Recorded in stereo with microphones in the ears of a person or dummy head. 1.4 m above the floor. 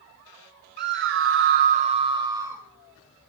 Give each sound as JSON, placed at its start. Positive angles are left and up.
{"t": 0.8, "sound": "a scream", "side_deg": -50, "distance_m": 0.6}